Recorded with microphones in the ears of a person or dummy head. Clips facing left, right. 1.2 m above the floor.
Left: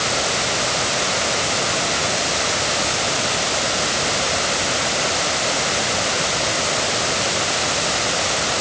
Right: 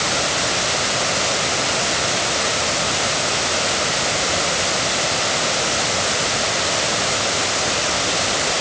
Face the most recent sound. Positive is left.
No sound to turn to.